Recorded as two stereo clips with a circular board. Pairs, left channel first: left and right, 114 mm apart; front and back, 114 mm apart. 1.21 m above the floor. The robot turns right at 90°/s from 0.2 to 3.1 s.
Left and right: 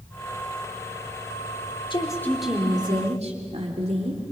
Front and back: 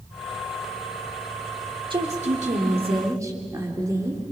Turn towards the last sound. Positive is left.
turn(degrees=-120)